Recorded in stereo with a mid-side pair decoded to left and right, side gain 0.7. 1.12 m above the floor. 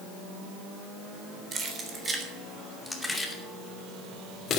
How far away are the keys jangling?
About 3.5 m.